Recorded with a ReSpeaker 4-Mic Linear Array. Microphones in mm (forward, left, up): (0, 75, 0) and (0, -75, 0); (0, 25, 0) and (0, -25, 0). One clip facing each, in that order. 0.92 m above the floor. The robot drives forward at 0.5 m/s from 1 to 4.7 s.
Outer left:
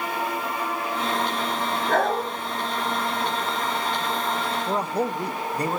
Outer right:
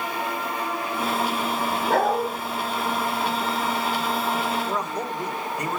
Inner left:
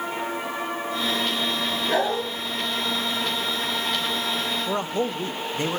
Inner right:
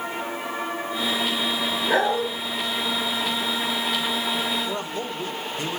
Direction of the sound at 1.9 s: 30° right (ahead or behind).